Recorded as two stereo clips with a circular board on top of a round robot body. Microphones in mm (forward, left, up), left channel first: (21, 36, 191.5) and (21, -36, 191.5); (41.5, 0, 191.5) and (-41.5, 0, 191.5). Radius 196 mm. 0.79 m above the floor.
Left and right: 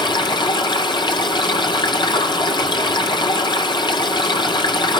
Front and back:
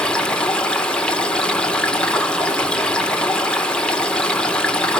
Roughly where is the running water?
Left.